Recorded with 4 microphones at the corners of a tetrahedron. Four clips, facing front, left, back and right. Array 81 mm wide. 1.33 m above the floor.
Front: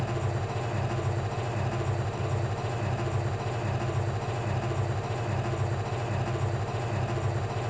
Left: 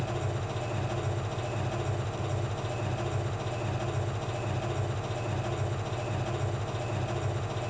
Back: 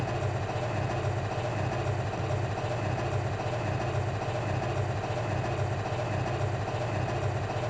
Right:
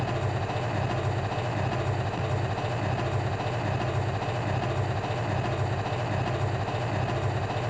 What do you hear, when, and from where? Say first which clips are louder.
0.0 s an engine running: right 4 dB, even; 95° right, 8.5 m